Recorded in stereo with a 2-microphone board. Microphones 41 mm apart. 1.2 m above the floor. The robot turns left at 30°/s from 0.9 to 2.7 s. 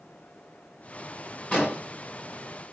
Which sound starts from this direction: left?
An explosion, at 1.5 s.